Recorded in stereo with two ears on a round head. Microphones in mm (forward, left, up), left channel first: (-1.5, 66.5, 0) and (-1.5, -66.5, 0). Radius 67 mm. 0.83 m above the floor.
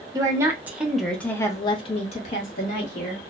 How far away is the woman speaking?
About 1.0 m.